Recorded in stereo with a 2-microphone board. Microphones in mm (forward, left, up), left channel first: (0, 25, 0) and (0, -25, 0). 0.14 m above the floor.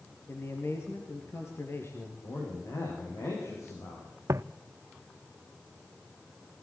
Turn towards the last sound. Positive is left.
turn(degrees=-85)